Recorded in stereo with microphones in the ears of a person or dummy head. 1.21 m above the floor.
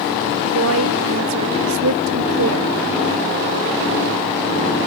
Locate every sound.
0.4 s a woman speaking: 80° right